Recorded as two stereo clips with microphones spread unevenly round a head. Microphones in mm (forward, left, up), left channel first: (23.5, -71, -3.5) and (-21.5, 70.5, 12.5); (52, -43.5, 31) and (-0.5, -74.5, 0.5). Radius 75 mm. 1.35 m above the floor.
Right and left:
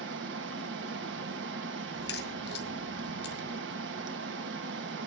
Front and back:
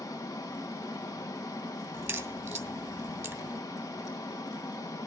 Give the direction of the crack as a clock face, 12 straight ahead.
3 o'clock.